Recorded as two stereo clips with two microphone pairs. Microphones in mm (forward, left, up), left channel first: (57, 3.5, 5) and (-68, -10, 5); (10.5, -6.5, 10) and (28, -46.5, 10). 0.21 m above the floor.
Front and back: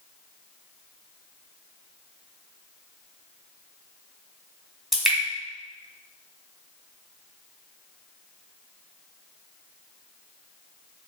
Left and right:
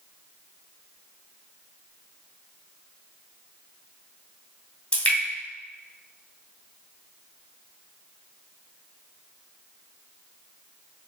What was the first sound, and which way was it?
Dripping, 100° left.